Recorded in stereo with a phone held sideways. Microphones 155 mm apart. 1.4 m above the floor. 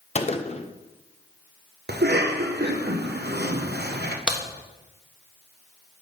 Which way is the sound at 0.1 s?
40° left (ahead or behind).